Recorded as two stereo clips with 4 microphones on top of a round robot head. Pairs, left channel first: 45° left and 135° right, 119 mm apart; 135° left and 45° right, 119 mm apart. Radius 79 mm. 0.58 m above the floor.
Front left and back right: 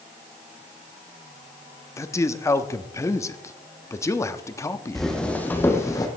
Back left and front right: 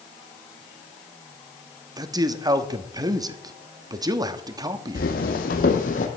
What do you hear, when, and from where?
2.0 s a man speaking: 5° right, 0.9 m
5.0 s footsteps: 135° left, 1.9 m; by 6.1 s 105° left, 1.9 m